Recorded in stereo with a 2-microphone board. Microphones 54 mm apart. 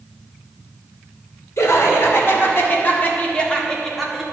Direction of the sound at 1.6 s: 65° left (ahead or behind).